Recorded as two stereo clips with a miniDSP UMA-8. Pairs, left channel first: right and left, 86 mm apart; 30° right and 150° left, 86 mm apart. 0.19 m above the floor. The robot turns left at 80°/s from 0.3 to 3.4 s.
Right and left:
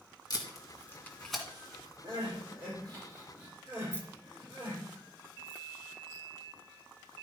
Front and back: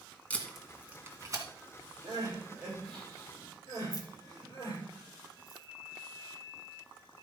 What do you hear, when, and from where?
0.3 s tape being pulled: 95° right, 1.8 m; by 1.4 s 175° left, 1.8 m
2.0 s crying: 120° left, 6.5 m; by 4.8 s 15° left, 6.5 m
3.9 s keys jangling: 35° right, 1.4 m